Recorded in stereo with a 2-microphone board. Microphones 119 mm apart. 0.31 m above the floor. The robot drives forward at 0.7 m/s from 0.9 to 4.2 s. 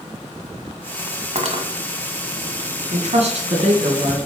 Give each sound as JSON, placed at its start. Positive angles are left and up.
{"t": 1.4, "sound": "cutlery clinking", "side_deg": -60, "distance_m": 1.3}
{"t": 2.9, "sound": "a woman speaking", "side_deg": -60, "distance_m": 2.0}